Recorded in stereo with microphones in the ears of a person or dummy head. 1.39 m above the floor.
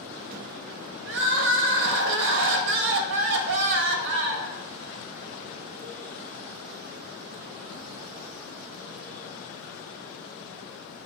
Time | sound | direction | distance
1.1 | crying | 60° right (ahead or behind) | 1.0 m